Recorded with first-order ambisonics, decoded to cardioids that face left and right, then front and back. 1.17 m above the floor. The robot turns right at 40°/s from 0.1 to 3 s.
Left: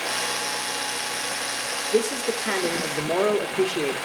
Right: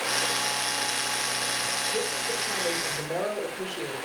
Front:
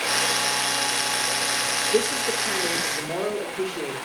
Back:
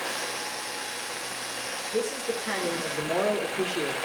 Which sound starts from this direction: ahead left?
A man speaking, at 1.9 s.